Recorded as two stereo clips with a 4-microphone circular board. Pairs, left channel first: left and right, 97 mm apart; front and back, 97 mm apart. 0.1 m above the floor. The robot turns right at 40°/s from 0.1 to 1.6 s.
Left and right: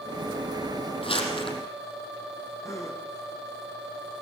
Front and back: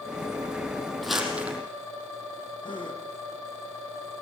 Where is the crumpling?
90° left, 4.5 m; by 1.6 s 110° left, 4.5 m.